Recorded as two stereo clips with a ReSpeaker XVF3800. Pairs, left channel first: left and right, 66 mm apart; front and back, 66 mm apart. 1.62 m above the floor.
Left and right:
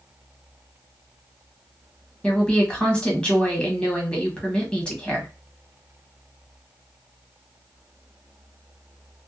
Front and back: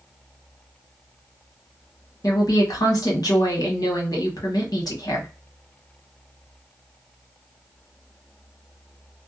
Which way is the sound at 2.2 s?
15° left.